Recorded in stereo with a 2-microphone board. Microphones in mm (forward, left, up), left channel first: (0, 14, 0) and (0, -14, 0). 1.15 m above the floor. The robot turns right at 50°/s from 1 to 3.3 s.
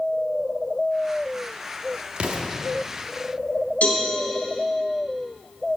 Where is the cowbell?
80° left, 3.5 m.